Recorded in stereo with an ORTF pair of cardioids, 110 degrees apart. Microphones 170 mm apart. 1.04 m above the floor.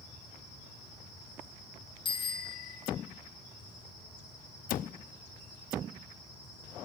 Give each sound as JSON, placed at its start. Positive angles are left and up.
{"t": 2.0, "sound": "a bicycle bell", "azimuth_deg": 30, "distance_m": 7.5}
{"t": 4.7, "sound": "a cupboard door", "azimuth_deg": 60, "distance_m": 0.8}